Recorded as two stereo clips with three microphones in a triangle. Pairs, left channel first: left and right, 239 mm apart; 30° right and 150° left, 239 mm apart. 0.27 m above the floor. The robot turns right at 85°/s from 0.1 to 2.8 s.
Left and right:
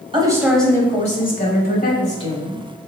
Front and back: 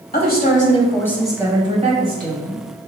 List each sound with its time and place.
0.1 s a woman speaking: 35° right, 1.2 m; by 2.6 s 175° left, 1.2 m